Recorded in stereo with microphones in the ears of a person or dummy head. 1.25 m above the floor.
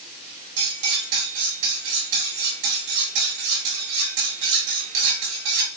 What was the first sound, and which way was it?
Cutlery clinking, 70° right (ahead or behind).